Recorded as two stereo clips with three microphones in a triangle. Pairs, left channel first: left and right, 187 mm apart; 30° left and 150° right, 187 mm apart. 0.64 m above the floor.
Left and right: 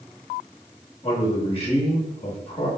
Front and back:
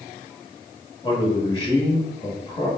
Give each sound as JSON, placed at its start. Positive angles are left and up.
{"t": 1.0, "sound": "a man speaking", "azimuth_deg": 75, "distance_m": 0.9}